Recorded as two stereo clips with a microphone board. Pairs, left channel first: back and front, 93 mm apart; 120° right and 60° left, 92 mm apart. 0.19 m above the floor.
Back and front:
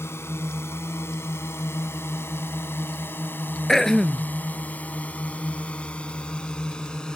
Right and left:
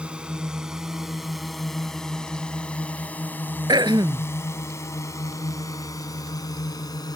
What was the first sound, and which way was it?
A drone, 135° left.